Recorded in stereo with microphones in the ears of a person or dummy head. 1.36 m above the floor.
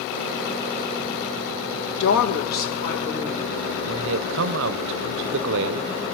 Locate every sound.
2.0 s a woman speaking: 60° left (ahead or behind), 1.6 m; by 3.5 s 40° left (ahead or behind), 2.5 m
3.9 s a man speaking: 65° right (ahead or behind), 0.5 m